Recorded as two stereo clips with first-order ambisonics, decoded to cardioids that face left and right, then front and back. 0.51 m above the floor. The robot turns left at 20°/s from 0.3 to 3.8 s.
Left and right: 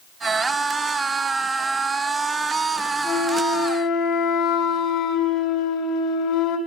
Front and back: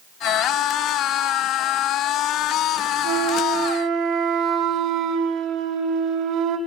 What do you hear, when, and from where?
3.0 s a flute: 145° left, 3 m; by 6.6 s 130° left, 3 m